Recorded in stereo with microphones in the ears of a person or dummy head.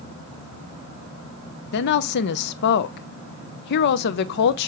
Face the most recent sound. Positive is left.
turn(degrees=60)  # may be behind; listen again after turning